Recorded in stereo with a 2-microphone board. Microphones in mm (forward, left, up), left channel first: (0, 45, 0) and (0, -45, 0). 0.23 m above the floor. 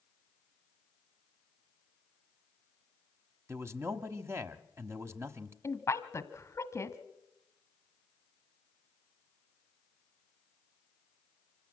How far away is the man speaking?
About 1.1 m.